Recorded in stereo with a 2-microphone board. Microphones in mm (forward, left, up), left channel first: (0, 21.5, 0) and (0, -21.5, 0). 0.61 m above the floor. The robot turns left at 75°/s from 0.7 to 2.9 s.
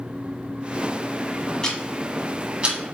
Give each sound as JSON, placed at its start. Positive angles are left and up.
{"t": 1.6, "sound": "ticking", "side_deg": 20, "distance_m": 1.0}